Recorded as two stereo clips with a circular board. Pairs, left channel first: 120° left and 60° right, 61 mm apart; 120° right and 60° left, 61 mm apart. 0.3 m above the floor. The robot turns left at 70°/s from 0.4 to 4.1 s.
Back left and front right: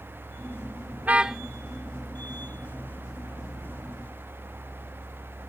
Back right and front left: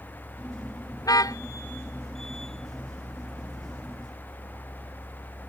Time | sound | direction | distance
1.0 | a car horn | 120° right | ?